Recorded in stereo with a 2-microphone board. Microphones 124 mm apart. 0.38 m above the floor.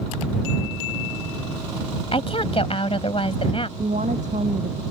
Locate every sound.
2.1 s a woman speaking: 50° left (ahead or behind)
3.8 s a woman speaking: 85° right